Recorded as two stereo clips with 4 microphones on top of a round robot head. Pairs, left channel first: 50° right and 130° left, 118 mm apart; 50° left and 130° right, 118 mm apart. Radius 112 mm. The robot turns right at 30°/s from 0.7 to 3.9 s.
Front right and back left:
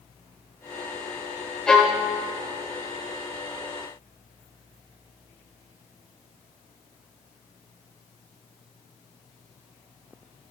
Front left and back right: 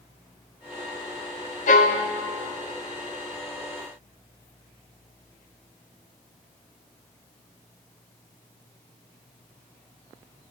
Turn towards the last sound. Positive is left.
turn(degrees=100)